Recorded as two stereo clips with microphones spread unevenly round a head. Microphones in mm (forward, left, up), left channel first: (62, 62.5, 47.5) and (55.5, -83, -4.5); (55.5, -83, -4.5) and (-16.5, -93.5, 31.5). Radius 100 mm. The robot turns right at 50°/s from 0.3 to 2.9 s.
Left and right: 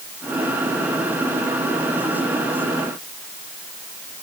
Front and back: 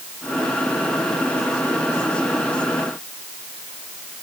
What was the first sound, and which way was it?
Only background noise.